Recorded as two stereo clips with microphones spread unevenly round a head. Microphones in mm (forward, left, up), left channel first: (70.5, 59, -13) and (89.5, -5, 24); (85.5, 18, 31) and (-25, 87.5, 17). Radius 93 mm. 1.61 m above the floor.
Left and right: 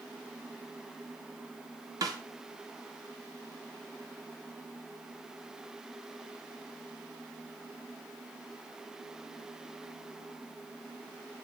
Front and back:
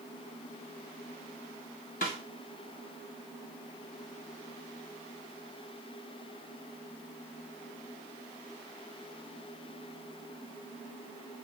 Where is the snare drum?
80° right, 1.1 m.